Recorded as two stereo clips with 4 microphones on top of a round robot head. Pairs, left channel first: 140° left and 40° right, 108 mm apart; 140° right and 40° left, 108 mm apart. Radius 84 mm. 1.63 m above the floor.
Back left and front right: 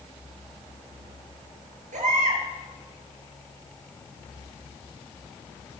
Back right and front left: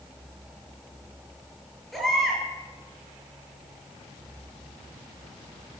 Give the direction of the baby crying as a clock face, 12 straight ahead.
2 o'clock.